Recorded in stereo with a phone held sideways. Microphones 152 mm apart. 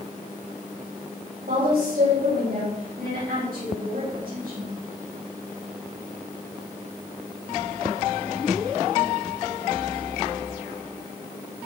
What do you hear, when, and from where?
1.5 s a woman speaking: 85° right, 8 m